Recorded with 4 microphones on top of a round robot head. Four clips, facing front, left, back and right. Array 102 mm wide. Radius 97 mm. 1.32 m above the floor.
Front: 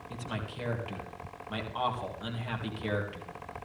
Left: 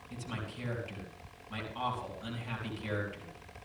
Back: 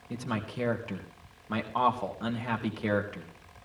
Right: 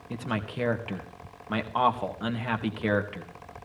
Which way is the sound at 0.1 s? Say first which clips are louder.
Right 10 dB, back 6 dB; 115° right.